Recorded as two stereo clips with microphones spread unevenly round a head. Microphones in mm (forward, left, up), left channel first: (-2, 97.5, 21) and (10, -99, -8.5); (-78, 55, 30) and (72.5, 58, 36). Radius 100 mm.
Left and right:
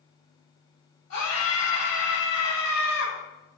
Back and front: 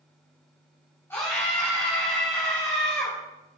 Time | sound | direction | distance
1.1 | a scream | 105° left | 5.5 m